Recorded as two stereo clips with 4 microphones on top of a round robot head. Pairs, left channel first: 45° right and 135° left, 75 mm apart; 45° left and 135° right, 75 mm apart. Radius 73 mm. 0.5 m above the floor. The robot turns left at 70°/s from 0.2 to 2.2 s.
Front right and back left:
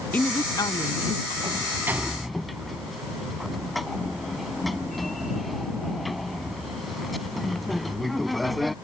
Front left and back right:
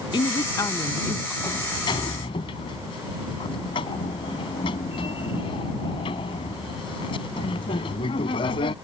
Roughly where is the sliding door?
Left.